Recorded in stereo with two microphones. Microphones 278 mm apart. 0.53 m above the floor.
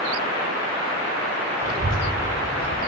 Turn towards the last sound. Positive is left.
turn(degrees=-70)  # may be behind; listen again after turning